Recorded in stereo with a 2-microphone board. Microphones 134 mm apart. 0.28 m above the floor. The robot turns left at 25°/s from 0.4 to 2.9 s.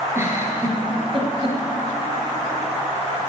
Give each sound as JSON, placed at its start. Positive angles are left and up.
{"t": 0.1, "sound": "a giggle", "side_deg": -25, "distance_m": 3.5}